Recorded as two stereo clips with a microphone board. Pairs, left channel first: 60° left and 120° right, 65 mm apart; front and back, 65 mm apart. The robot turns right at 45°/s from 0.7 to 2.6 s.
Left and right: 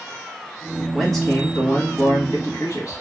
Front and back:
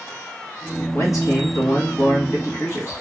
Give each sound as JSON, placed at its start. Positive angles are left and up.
{"t": 0.9, "sound": "a man speaking", "azimuth_deg": -30, "distance_m": 1.7}